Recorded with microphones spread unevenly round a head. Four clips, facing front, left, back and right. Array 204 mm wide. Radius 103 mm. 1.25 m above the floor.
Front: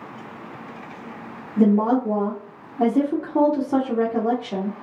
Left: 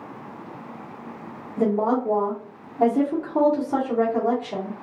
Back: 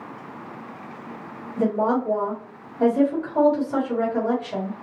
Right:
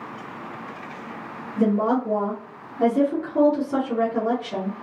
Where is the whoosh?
No whoosh in this recording.